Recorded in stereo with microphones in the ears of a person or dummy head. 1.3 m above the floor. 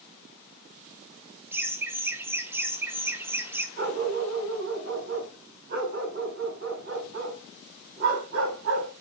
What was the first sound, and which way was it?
Laughter, 10° right (ahead or behind).